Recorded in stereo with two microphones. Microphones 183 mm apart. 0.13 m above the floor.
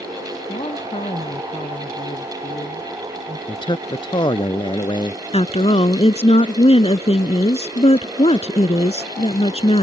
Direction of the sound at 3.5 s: 25° left (ahead or behind).